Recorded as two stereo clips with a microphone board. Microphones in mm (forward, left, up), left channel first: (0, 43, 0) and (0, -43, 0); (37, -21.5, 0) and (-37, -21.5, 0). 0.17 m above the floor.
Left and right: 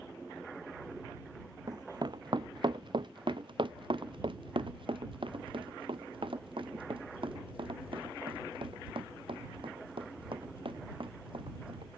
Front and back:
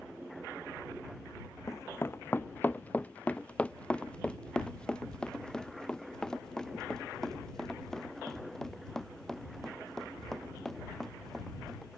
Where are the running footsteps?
50° right; by 12.0 s 85° right.